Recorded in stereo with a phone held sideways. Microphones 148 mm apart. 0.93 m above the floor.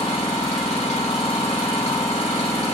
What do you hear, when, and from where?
0.0 s an engine running: 45° left (ahead or behind), 2 m